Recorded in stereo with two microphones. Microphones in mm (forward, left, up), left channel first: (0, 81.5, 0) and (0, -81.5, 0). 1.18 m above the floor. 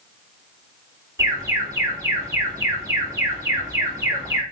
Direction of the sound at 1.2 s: 20° right (ahead or behind).